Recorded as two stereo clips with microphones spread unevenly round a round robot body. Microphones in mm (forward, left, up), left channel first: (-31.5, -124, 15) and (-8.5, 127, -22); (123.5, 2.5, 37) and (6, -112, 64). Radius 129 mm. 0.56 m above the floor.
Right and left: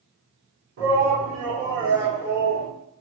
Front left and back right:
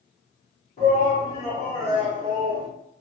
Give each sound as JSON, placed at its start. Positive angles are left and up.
{"t": 0.8, "sound": "a shout", "azimuth_deg": 85, "distance_m": 1.9}